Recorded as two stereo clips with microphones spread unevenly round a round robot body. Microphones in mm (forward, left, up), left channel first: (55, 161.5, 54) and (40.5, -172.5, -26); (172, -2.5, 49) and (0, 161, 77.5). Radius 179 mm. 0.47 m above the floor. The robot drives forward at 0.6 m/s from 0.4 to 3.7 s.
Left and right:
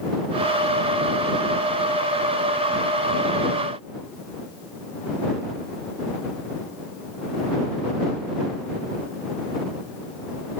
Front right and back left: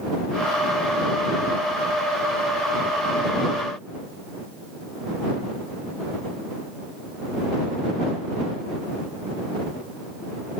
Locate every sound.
Only background noise.